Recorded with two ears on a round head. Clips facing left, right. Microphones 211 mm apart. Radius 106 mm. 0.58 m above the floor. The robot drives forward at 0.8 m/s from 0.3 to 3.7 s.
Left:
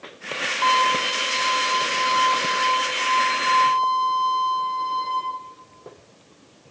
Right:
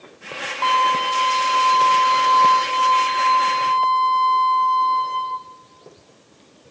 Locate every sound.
0.6 s a violin: 5° left (ahead or behind), 1.0 m; by 5.2 s centre (ahead or behind), 3 m